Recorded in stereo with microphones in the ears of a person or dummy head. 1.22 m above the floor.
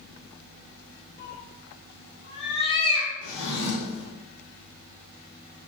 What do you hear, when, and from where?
1.2 s a cat meowing: 60° left (ahead or behind), 1.4 m; by 3.1 s 25° left (ahead or behind), 2 m
3.2 s a drawer: 70° left (ahead or behind), 1.7 m